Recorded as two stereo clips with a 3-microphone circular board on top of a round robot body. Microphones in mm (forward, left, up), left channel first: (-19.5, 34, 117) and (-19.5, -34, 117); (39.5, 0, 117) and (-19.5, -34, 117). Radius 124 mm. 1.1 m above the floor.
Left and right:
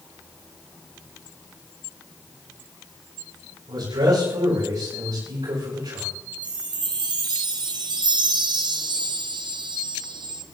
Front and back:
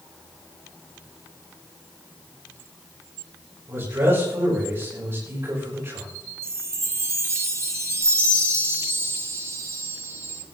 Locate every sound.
3.7 s a man speaking: 95° right, 7 m
6.4 s a chime: 100° right, 1.5 m